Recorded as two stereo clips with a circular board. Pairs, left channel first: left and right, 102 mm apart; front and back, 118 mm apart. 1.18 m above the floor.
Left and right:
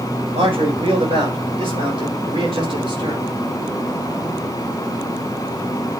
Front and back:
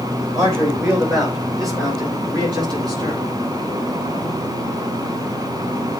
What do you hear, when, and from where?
0.3 s a man speaking: 120° right, 5.5 m; by 3.2 s 130° right, 4 m